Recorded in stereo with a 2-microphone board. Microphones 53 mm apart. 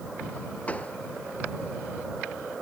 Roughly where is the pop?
Left.